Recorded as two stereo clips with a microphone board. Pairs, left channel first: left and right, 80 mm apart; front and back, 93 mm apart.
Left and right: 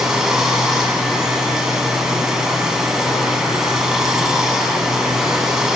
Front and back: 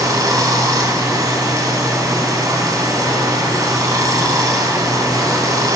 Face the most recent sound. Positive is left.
turn(degrees=-170)